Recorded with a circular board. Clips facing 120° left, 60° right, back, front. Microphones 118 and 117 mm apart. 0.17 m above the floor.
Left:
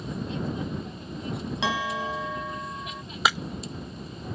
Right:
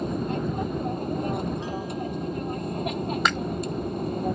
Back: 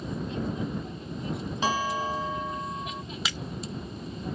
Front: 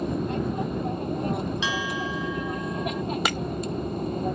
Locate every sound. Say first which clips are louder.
0.0 s an aircraft: right 5 dB, front 6 dB; 25° right; by 4.4 s 30° right
1.6 s a bell: left 2 dB, back 1 dB; 135° left
3.2 s breaking glass: left 2 dB, front 7 dB; 35° left